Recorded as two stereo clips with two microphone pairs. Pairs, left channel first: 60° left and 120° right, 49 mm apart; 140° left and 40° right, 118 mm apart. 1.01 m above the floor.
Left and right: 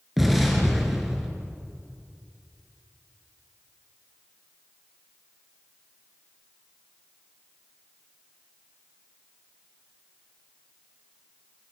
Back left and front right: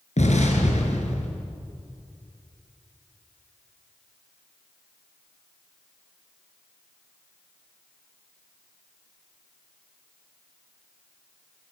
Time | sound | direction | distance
0.2 | an explosion | 155° left | 4 m